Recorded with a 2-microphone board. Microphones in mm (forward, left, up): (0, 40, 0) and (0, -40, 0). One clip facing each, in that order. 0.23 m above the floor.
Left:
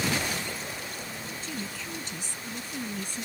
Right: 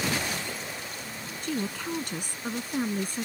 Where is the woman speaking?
60° right (ahead or behind); by 3.3 s 45° right (ahead or behind).